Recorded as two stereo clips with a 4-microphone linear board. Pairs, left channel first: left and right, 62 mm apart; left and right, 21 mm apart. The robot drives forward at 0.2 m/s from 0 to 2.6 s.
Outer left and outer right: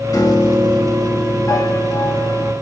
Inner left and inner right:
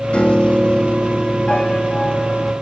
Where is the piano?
80° left, 1.8 m; by 2.5 s 65° left (ahead or behind), 1.9 m.